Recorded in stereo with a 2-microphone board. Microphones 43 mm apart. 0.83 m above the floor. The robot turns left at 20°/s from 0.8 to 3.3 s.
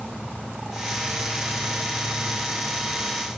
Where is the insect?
165° right, 1.4 m; by 3.4 s 145° left, 1.4 m.